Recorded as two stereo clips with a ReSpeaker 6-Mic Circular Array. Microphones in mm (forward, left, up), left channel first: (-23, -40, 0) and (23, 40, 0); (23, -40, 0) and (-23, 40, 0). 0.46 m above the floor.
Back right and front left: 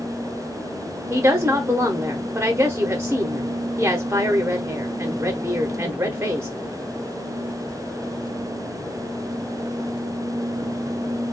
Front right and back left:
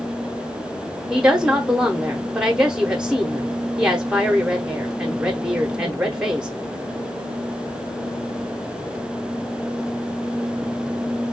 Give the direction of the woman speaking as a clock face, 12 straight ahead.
10 o'clock.